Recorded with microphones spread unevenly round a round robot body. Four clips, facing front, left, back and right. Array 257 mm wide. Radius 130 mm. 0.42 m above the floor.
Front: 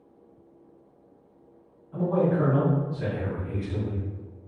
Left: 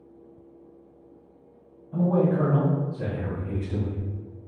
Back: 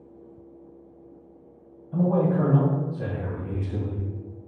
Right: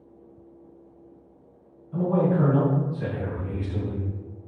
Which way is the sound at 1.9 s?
160° left.